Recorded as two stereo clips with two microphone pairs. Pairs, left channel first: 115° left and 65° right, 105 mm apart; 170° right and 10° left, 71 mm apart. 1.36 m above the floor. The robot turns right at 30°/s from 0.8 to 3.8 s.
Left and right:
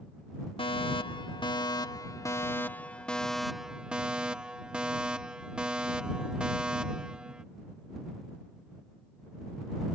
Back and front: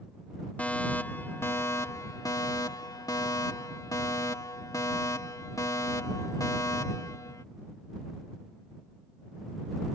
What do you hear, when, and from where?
0.6 s a fire alarm: 125° left; by 7.5 s 145° right